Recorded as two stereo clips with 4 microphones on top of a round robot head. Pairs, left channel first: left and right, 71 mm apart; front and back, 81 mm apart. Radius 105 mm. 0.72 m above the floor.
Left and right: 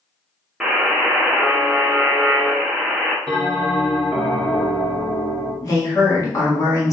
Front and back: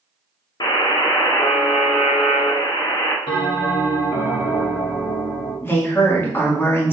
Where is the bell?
Straight ahead, 1.8 m.